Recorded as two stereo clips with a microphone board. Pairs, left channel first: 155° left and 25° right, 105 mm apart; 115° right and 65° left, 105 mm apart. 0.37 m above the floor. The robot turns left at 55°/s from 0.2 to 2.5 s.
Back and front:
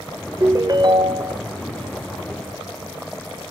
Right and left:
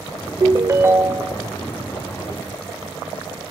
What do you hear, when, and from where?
0.4 s a ringtone: 30° left, 0.5 m; by 1.4 s 25° right, 0.5 m